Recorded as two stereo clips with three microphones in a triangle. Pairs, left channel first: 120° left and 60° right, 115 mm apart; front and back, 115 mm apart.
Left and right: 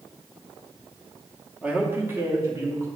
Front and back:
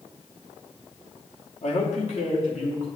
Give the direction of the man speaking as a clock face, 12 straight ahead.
11 o'clock.